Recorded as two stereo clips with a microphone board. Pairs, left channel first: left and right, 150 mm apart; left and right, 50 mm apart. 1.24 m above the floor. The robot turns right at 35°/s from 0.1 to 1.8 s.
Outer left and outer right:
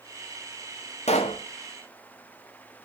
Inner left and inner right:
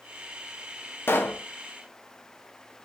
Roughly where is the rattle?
No rattle in this recording.